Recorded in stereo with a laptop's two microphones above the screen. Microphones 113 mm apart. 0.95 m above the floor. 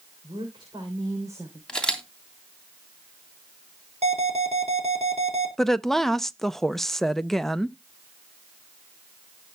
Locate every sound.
0.2 s a woman speaking: 55° right (ahead or behind), 3.5 m; by 1.6 s 20° right (ahead or behind), 3 m
1.7 s a camera shutter: 5° left (ahead or behind), 2.5 m
4.0 s an alarm: 70° right (ahead or behind), 3.5 m
5.6 s a woman speaking: 5° left (ahead or behind), 0.6 m